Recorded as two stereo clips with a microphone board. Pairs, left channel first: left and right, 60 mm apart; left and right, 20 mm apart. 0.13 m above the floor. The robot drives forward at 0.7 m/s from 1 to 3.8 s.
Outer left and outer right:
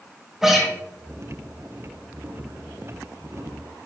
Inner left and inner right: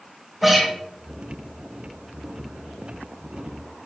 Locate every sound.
0.4 s a guitar: 5° right (ahead or behind), 3 m